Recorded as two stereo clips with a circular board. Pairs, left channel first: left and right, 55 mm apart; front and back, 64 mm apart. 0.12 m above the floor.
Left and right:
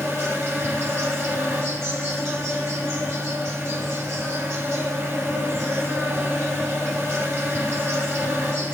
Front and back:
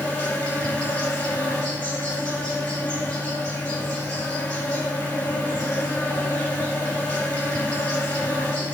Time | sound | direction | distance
0.0 | an insect | 65° right | 3.5 m